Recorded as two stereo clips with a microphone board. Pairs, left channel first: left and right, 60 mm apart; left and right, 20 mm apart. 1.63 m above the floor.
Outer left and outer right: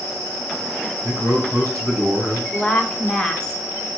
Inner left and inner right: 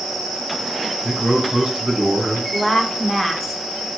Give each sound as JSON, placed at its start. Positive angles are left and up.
{"t": 1.0, "sound": "a man speaking", "side_deg": -60, "distance_m": 2.5}
{"t": 2.5, "sound": "a woman speaking", "side_deg": 10, "distance_m": 0.8}